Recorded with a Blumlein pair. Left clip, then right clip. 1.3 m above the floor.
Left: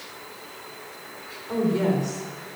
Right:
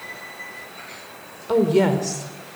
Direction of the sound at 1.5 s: 60° right.